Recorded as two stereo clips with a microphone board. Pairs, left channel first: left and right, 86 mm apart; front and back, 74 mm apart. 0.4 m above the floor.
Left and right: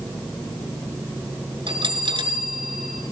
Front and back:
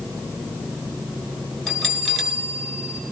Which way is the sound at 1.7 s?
85° right.